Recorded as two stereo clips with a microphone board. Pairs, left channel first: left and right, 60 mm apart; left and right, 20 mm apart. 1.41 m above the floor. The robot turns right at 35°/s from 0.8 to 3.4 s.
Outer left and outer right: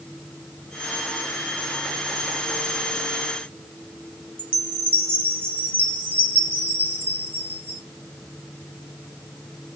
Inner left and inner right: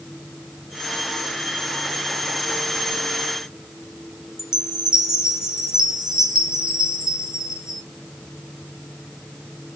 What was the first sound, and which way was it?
A chime, 35° right (ahead or behind).